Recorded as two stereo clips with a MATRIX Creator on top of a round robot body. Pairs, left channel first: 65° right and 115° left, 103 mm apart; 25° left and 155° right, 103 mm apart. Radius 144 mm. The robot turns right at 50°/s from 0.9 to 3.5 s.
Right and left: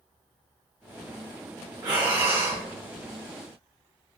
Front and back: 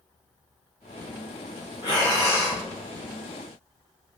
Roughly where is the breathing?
Ahead left.